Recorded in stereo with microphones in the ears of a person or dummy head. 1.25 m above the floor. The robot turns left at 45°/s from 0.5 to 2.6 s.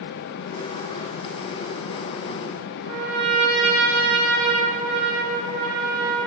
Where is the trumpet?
55° right (ahead or behind), 3 m.